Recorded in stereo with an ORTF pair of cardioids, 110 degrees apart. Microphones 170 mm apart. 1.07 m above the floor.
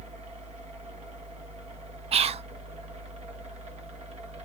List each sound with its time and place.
0.0 s a fan: 40° right, 1.6 m
2.1 s whispering: 35° right, 0.6 m